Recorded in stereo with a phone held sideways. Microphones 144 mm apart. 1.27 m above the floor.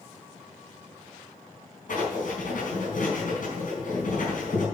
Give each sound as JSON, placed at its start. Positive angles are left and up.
{"t": 1.9, "sound": "writing", "side_deg": 70, "distance_m": 4.0}